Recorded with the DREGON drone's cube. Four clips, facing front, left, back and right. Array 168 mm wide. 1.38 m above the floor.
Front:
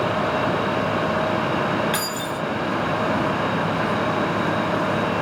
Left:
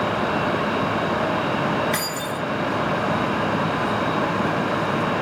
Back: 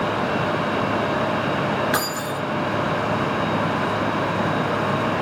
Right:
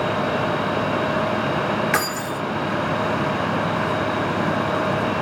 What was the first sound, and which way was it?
Keys jangling, 125° right.